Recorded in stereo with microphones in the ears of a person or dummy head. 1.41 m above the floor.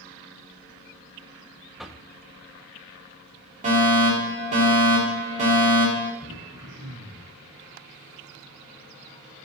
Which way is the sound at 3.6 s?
40° right (ahead or behind).